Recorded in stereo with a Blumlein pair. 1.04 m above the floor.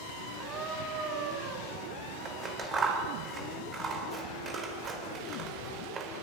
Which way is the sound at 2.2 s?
20° right.